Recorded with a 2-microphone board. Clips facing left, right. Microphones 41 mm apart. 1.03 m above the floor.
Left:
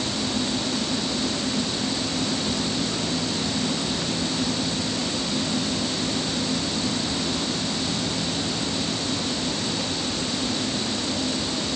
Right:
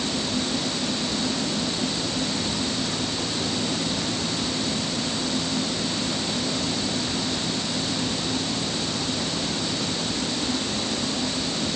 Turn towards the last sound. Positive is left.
No sound to turn to.